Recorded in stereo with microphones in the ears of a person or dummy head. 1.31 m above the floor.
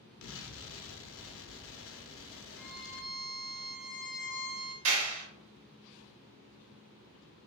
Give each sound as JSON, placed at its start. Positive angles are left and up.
{"t": 0.2, "sound": "an explosion", "side_deg": 60, "distance_m": 0.7}
{"t": 2.6, "sound": "a violin", "side_deg": 30, "distance_m": 1.1}
{"t": 4.8, "sound": "a clap", "side_deg": -85, "distance_m": 1.5}